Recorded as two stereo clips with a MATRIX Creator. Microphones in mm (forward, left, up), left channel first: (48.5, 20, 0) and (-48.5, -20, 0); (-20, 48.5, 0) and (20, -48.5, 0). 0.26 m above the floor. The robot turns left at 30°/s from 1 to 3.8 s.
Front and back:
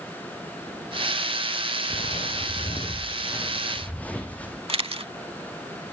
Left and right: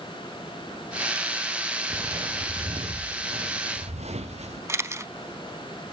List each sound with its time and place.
1.9 s footsteps: straight ahead, 2 m; by 4.6 s 55° right, 3.5 m
4.7 s a camera shutter: 130° right, 0.5 m